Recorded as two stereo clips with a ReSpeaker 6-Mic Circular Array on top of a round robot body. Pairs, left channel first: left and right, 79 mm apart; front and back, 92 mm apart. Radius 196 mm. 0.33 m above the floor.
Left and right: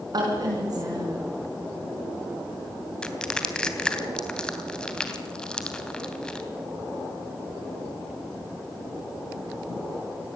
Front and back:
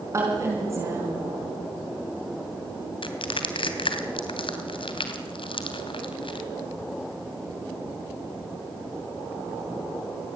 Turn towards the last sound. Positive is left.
turn(degrees=10)